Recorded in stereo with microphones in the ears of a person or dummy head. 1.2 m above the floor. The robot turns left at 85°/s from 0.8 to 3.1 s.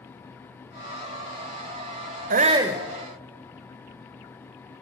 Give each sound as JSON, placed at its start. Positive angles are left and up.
{"t": 2.3, "sound": "a shout", "azimuth_deg": -135, "distance_m": 0.8}